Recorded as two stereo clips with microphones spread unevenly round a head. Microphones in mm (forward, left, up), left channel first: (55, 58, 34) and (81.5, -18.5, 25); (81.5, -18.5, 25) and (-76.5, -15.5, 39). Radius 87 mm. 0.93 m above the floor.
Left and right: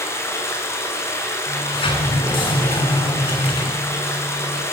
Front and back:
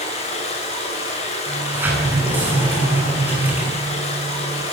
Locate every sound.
0.0 s running water: 50° left, 9.5 m
1.5 s a sliding door: 100° left, 8.5 m